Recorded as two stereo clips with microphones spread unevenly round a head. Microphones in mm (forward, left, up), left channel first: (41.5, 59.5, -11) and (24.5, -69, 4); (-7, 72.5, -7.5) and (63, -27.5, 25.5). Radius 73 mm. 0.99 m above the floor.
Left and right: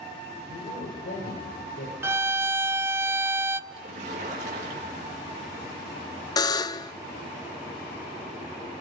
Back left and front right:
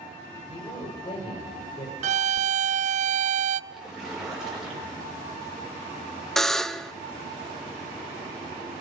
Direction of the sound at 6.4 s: 60° left.